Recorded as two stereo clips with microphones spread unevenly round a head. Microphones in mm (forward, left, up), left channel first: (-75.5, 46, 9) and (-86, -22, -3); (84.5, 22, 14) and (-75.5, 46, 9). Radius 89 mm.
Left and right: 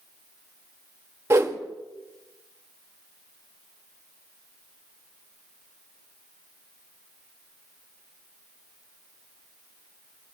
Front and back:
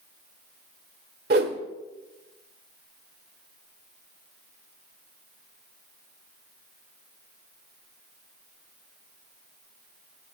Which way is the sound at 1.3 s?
155° right.